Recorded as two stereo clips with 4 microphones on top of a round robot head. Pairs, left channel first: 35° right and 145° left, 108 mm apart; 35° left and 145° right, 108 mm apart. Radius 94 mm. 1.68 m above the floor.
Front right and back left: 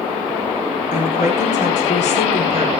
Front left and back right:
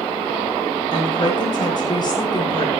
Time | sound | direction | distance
0.9 | a woman speaking | 20° right | 6.5 m